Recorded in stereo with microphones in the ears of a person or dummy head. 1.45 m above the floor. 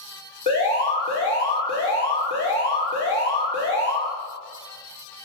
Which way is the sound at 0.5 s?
35° left (ahead or behind).